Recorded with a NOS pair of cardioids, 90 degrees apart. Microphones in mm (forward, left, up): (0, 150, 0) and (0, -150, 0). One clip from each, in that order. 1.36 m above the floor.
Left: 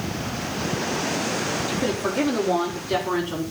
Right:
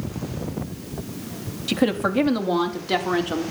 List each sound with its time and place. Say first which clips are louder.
1.7 s a woman speaking: right 2 dB; 50° right, 3 m; by 3.4 s 65° right, 5 m